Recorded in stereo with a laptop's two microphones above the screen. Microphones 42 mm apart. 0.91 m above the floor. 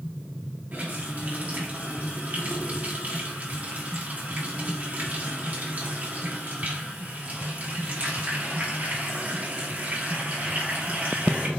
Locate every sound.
0.7 s a running tap: 45° right (ahead or behind), 1.2 m